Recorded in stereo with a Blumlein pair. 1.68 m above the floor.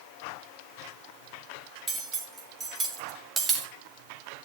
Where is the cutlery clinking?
15° right, 2.5 m.